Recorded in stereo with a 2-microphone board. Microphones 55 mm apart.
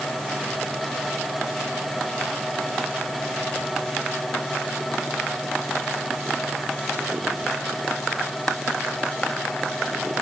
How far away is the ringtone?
No ringtone in this recording.